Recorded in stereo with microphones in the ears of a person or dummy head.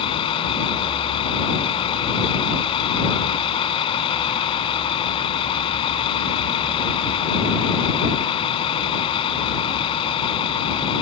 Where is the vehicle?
35° left (ahead or behind).